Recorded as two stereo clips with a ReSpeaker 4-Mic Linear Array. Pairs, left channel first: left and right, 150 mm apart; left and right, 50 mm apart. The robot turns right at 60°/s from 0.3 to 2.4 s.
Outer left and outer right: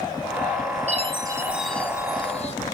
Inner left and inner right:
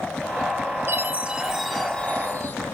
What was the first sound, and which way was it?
A chime, 45° right.